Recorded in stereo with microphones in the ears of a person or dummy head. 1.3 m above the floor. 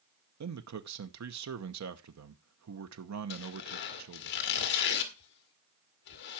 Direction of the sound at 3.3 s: 60° left (ahead or behind).